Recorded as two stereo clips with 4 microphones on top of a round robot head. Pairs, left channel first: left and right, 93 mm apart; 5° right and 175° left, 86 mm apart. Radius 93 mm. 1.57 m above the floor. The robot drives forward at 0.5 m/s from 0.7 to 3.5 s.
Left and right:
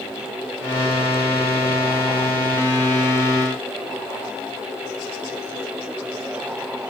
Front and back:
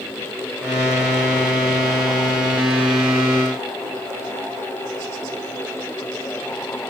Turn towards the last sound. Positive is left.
No sound to turn to.